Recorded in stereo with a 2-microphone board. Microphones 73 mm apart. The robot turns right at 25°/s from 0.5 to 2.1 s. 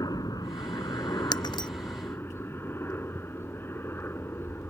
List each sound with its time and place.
0.0 s a helicopter: 100° left; by 4.7 s 140° left
1.3 s breaking glass: 75° left (ahead or behind); by 1.7 s 80° left